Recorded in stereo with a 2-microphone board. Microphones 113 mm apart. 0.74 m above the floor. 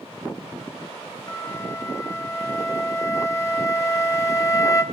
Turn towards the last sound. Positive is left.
turn(degrees=30)  # may be behind; listen again after turning